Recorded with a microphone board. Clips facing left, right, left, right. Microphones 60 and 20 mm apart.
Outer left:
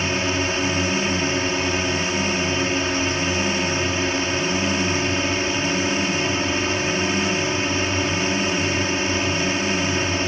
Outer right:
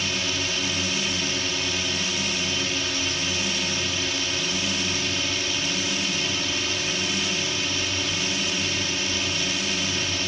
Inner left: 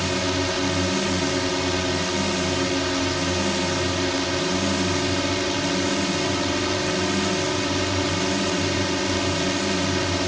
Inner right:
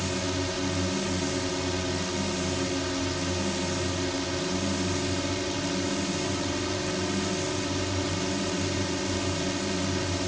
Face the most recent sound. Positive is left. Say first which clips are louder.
# outer left 6 dB, inner left 6 dB
turn(degrees=35)  # may be behind; listen again after turning